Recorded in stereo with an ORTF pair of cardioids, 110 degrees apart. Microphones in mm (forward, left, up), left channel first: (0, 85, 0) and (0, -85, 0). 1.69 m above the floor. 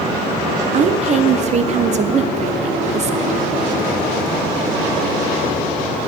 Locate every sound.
0.7 s a woman speaking: 45° right, 0.9 m